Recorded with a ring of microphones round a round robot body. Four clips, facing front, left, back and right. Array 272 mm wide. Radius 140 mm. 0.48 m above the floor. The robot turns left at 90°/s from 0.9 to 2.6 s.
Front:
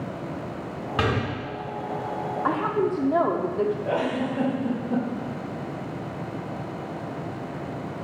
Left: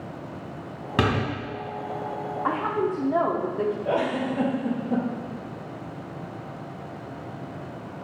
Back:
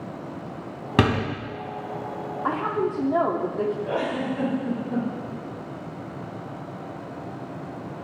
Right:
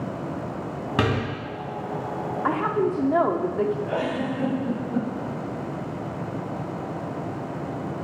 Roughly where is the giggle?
Ahead left.